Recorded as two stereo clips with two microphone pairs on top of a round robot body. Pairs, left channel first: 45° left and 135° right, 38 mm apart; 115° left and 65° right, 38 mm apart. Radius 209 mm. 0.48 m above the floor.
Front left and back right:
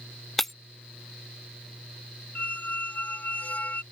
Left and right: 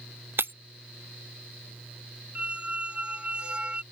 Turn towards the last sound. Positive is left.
turn(degrees=0)